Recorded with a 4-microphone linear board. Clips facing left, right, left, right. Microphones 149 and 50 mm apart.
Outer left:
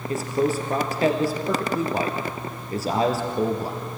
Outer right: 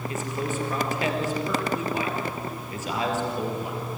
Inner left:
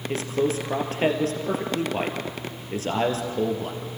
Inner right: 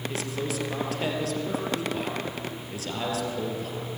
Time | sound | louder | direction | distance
0.1 | a man speaking | outer left 10 dB, inner left 6 dB | 35° left (ahead or behind) | 3 m